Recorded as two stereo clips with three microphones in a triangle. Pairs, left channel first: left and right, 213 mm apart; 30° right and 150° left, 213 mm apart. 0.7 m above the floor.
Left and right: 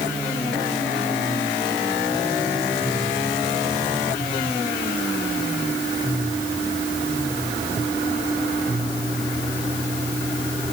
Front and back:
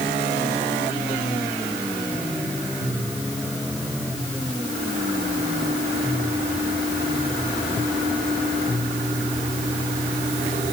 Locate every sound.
Only background noise.